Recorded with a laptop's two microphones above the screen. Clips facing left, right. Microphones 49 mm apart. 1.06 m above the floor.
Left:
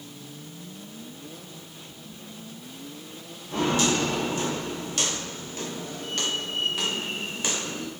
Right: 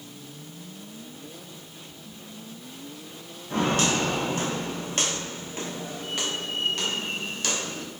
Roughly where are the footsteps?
Right.